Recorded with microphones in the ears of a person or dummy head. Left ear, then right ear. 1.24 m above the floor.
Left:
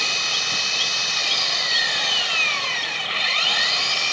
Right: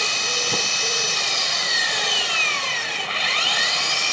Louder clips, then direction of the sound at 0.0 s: Even; centre (ahead or behind).